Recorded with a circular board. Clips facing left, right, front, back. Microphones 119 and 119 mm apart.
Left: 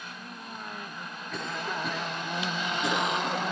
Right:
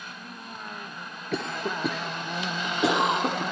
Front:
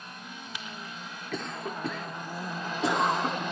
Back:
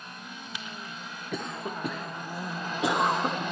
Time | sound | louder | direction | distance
1.3 | a cough | right 4 dB, back 1 dB | 105° right | 0.7 m